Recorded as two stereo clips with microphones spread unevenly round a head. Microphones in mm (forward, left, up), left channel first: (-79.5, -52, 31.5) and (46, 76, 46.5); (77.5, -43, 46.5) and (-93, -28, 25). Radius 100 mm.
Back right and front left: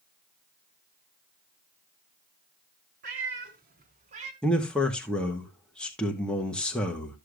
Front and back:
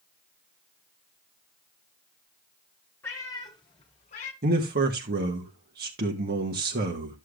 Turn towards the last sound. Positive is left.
turn(degrees=140)